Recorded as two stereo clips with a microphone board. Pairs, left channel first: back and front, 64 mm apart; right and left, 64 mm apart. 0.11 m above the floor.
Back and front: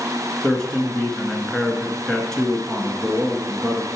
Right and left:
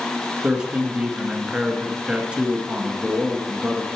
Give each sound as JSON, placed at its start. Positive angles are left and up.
{"t": 0.4, "sound": "a man speaking", "azimuth_deg": 125, "distance_m": 1.3}